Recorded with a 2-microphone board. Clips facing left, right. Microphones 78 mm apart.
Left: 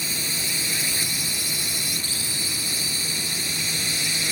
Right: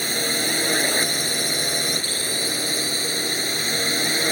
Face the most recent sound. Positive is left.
turn(degrees=-50)  # may be behind; listen again after turning